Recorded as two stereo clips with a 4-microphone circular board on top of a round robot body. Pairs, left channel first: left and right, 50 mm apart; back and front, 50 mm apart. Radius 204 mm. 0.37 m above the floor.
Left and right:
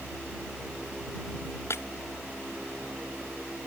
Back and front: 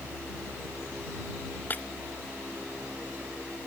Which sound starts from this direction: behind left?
Breaking glass, at 1.7 s.